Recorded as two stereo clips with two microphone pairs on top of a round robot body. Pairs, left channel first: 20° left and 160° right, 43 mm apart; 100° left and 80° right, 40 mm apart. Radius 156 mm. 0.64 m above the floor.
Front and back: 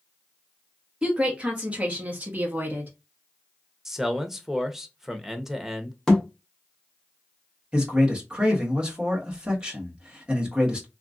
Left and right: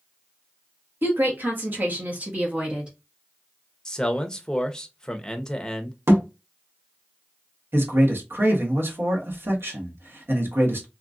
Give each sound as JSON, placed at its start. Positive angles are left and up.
{"t": 1.0, "sound": "a woman speaking", "azimuth_deg": -95, "distance_m": 1.5}
{"t": 3.9, "sound": "a man speaking", "azimuth_deg": 150, "distance_m": 0.9}
{"t": 6.1, "sound": "a thud", "azimuth_deg": -60, "distance_m": 1.0}
{"t": 7.7, "sound": "a man speaking", "azimuth_deg": -95, "distance_m": 1.6}